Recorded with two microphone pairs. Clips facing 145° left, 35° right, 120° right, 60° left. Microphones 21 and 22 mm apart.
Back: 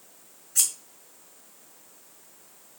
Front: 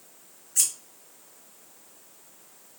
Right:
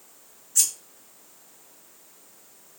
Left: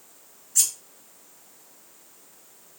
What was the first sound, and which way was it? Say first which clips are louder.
Scissors: even, even; 145° left.